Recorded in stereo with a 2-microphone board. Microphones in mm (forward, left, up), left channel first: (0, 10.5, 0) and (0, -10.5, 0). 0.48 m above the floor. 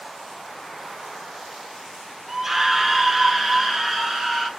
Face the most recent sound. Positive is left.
turn(degrees=0)  # may be behind; listen again after turning